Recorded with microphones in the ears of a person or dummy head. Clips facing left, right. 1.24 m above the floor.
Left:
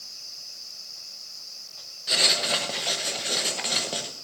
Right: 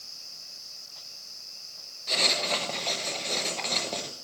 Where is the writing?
10° left (ahead or behind), 1.0 m.